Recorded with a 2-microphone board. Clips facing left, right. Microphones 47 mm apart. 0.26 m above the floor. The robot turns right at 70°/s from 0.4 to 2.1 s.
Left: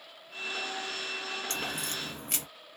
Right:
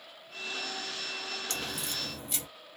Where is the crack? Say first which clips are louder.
Left 2 dB; 35° left, 0.8 m; by 2.5 s 75° left, 0.8 m.